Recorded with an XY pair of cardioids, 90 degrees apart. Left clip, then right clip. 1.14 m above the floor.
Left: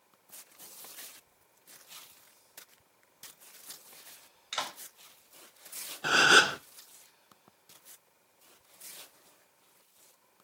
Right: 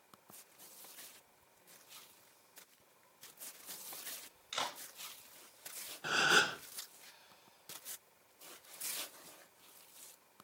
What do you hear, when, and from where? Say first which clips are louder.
4.5 s a clap: left 3 dB; 45° left, 9.5 m
6.0 s a gasp: left 8 dB; 65° left, 0.6 m